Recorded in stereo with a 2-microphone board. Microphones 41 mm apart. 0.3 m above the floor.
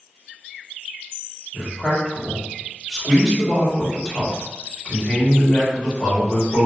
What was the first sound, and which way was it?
A man speaking, 5° right (ahead or behind).